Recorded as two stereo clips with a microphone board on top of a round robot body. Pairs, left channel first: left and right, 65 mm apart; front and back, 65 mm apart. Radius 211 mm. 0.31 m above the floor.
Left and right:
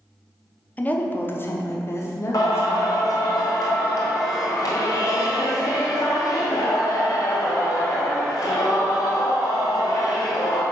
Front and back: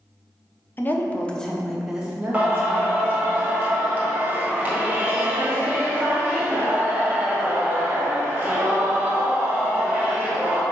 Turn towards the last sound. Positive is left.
turn(degrees=110)